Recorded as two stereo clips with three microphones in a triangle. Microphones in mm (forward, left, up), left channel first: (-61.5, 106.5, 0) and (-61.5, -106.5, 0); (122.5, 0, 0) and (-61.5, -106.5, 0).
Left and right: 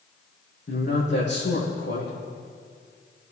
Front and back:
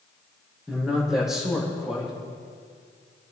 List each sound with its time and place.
0.7 s a man speaking: 120° left, 5.5 m